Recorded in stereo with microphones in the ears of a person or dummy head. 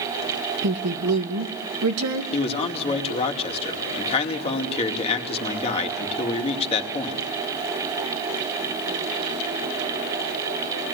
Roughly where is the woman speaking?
Right.